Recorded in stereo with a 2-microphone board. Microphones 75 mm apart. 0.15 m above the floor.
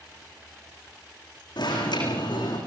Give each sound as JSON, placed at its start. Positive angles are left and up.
{"t": 1.6, "sound": "an alarm", "side_deg": 75, "distance_m": 7.5}